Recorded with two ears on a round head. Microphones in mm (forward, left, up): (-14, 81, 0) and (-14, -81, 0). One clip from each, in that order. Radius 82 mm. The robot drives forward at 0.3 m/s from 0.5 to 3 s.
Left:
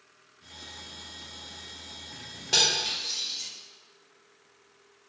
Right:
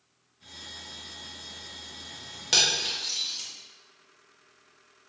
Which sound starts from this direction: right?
Cutlery clinking, at 2.5 s.